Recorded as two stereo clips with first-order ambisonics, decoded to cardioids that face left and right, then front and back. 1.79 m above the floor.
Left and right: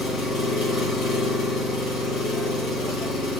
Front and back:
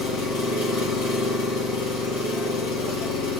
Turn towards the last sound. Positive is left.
turn(degrees=25)